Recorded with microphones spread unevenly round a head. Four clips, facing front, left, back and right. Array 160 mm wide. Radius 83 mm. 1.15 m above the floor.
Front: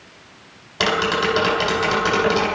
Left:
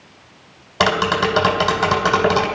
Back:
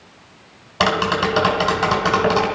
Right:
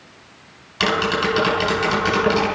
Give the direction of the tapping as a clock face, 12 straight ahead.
9 o'clock.